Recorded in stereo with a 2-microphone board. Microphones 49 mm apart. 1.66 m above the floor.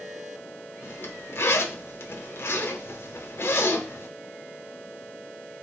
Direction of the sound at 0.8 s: 55° left (ahead or behind).